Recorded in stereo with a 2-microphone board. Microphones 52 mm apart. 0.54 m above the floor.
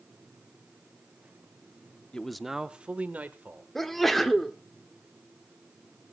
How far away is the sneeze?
About 1.3 m.